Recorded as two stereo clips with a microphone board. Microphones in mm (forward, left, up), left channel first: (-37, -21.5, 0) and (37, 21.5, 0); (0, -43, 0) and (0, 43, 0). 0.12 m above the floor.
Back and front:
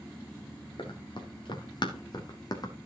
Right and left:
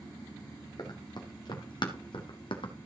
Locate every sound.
0.8 s running footsteps: 130° right, 3 m; by 2.7 s 110° right, 3 m